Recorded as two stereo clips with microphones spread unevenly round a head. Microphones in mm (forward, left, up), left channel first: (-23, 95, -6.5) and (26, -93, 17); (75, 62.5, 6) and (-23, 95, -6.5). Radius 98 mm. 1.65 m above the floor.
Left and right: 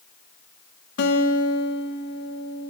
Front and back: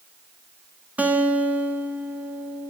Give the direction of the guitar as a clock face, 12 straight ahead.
9 o'clock.